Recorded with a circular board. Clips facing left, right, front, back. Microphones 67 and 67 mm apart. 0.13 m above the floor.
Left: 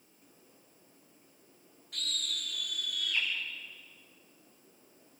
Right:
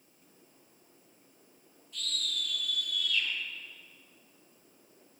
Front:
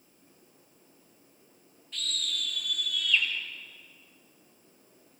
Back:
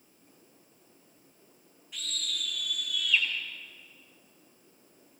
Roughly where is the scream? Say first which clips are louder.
Right 1 dB, front 2 dB; left.